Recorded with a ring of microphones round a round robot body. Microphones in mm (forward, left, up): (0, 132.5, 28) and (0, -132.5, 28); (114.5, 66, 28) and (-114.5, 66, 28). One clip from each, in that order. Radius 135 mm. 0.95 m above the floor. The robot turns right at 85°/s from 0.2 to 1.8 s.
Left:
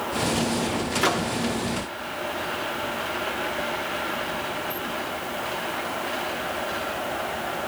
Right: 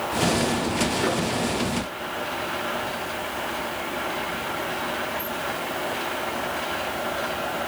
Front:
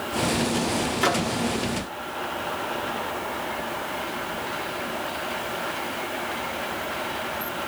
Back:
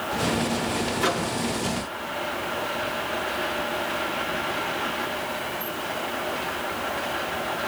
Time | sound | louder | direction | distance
1.0 | a microwave | left 1 dB, front 3 dB | 55° left | 2 m